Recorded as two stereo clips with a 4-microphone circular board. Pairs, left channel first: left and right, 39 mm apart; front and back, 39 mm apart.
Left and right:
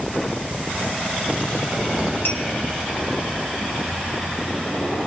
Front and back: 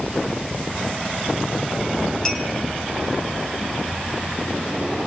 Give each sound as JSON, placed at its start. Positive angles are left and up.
{"t": 2.2, "sound": "a clink", "azimuth_deg": 70, "distance_m": 4.5}